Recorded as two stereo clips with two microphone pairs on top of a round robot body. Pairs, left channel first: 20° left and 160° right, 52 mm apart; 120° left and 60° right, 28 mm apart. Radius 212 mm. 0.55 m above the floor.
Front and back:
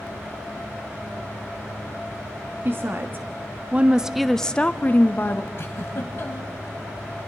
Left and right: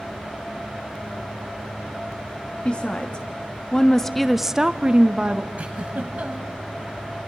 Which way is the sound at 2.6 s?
165° left.